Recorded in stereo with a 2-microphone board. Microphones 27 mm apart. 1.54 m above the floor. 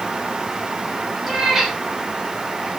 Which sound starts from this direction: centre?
A cat meowing, at 1.3 s.